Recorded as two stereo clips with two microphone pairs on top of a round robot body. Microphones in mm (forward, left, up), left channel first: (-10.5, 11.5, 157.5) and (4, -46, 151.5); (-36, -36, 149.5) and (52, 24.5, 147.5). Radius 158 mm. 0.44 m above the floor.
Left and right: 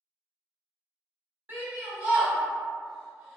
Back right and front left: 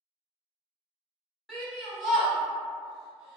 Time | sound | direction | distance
1.5 | a shout | 60° right | 1.5 m